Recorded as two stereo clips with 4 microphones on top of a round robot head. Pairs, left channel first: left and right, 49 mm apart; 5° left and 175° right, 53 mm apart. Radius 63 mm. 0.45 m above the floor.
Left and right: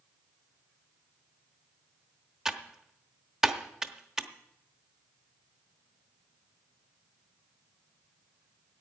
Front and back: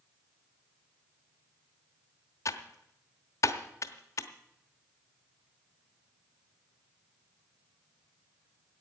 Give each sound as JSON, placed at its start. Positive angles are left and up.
{"t": 2.5, "sound": "typing on a keyboard", "azimuth_deg": -10, "distance_m": 1.0}